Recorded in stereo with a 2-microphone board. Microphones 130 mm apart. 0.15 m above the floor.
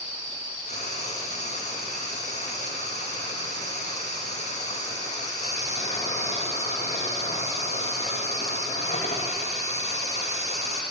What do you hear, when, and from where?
0.7 s frying: 65° left (ahead or behind), 7.5 m